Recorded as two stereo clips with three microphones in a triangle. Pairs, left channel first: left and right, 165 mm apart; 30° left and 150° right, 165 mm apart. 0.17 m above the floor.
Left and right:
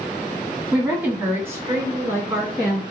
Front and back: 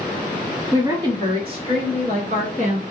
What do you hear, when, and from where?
0.7 s a woman speaking: 160° right, 1.3 m; by 2.8 s 150° right, 1.9 m